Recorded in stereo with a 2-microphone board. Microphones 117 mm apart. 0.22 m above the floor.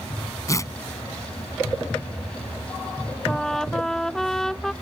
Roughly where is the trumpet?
Centre.